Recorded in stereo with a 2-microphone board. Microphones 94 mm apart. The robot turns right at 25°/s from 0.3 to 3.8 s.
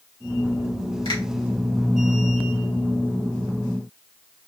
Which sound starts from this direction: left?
A finger snap, at 1.1 s.